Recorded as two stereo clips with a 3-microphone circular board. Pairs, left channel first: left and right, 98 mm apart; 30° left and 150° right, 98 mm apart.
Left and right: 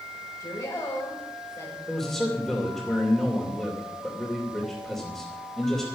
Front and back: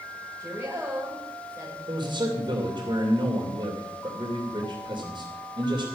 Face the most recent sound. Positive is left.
turn(degrees=175)